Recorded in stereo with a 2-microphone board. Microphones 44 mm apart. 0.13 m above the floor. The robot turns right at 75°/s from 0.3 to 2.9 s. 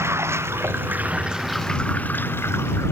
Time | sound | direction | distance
0.0 | running water | 95° right | ?